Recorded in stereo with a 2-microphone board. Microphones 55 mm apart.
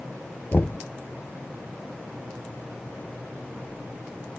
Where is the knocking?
40° left (ahead or behind).